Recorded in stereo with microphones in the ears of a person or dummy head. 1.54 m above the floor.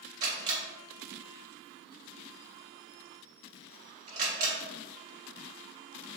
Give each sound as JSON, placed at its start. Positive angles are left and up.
{"t": 0.2, "sound": "a camera shutter", "side_deg": -40, "distance_m": 1.4}